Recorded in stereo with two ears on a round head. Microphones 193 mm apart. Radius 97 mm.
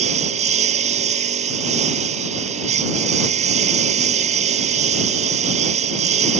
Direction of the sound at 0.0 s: 35° right (ahead or behind).